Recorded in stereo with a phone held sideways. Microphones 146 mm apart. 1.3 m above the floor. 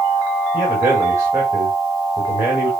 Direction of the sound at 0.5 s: 15° right (ahead or behind).